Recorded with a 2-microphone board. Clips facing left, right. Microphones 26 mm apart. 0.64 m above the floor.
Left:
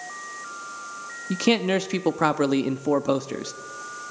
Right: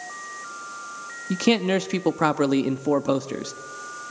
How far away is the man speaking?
About 0.5 m.